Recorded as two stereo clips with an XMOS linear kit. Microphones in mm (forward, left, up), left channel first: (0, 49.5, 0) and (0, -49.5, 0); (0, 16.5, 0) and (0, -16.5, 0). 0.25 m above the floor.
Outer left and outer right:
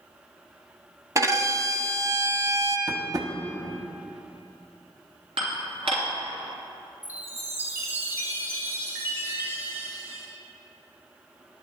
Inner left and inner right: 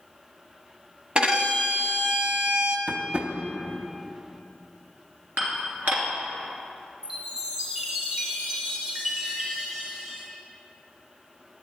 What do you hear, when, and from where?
1.1 s a violin: 35° right (ahead or behind), 1.1 m
2.9 s tapping: 40° right (ahead or behind), 0.9 m
5.4 s dishes clattering: 70° right (ahead or behind), 3 m
7.0 s a chime: 20° right (ahead or behind), 3 m